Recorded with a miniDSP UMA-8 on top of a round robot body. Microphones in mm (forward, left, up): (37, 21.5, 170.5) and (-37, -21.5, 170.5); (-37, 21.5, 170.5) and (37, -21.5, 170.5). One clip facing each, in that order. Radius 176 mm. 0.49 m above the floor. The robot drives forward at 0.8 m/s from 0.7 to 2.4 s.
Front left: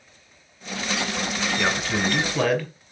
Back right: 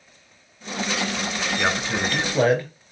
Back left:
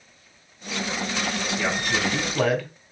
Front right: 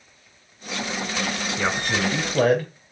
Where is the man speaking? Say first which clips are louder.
Back right 1 dB, front right 2 dB; 75° right, 3 m; by 2.7 s 90° right, 3 m.